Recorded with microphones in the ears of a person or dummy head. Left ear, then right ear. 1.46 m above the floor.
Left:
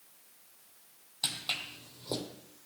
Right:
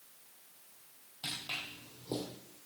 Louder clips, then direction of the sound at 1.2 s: Left 5 dB; 40° left (ahead or behind).